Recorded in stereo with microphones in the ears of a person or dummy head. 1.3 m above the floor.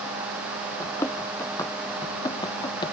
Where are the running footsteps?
15° left (ahead or behind); by 2.9 s 25° left (ahead or behind).